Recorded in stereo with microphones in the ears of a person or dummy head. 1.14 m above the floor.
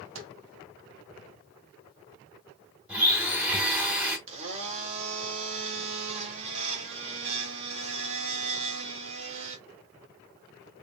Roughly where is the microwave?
Right.